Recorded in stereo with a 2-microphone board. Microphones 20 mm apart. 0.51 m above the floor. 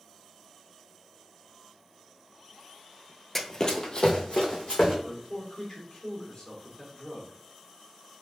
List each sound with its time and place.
3.4 s running footsteps: 10° left (ahead or behind), 0.5 m; by 4.9 s 55° left (ahead or behind), 2.5 m
5.0 s a man speaking: 45° left (ahead or behind), 1.7 m